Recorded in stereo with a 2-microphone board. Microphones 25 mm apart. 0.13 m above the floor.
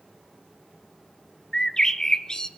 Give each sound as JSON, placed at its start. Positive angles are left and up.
{"t": 1.5, "sound": "a bird", "side_deg": 30, "distance_m": 0.6}